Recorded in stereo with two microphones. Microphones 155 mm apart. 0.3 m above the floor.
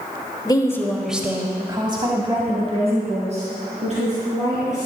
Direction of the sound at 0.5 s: 30° left (ahead or behind).